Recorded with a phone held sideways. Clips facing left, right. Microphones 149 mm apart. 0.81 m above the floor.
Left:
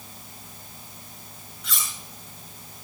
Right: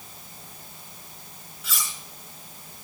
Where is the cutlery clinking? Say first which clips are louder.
Even; 5° right (ahead or behind), 7 m.